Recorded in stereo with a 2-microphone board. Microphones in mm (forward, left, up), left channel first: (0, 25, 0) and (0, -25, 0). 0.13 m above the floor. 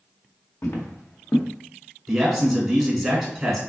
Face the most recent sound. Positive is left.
turn(degrees=-5)  # may be behind; listen again after turning